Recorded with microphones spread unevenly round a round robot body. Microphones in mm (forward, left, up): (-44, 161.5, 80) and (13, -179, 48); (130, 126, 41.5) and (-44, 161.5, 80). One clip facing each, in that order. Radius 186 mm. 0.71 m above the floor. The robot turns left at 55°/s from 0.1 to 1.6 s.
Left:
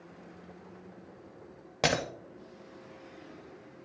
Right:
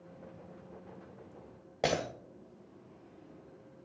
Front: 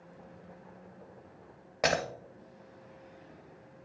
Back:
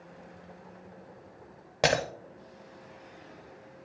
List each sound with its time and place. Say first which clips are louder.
1.8 s breaking glass: left 1 dB, back 3 dB; 150° left, 0.5 m